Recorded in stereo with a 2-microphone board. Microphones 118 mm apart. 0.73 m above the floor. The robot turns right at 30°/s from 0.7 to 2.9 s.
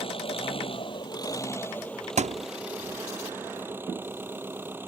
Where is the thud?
70° right (ahead or behind); by 2.5 s 80° right.